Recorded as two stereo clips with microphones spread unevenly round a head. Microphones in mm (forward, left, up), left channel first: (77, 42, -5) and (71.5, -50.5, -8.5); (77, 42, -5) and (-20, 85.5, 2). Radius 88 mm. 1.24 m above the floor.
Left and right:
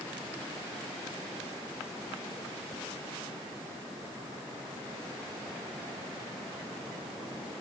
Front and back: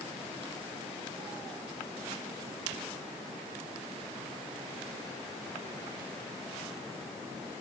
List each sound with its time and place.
Only background noise.